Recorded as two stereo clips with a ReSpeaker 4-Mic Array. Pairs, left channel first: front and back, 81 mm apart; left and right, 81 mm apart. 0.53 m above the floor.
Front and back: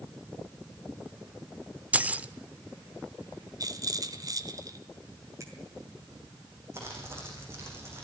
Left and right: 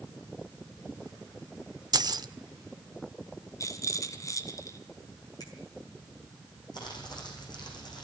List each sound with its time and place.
1.9 s keys jangling: 110° right, 0.9 m
3.6 s a rattle: 140° left, 1.7 m
5.4 s a finger snap: 130° left, 5 m
6.7 s crumpling: 120° left, 8.5 m